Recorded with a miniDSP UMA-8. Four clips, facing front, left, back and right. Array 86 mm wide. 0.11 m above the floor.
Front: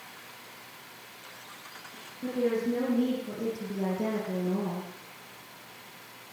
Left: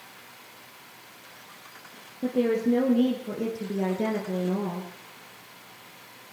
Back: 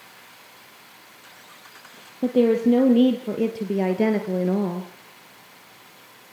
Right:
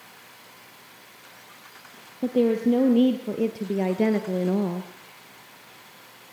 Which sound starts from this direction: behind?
A woman speaking, at 2.2 s.